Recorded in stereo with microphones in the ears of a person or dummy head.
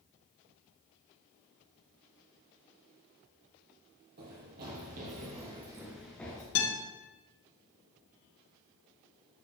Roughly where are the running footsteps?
Right.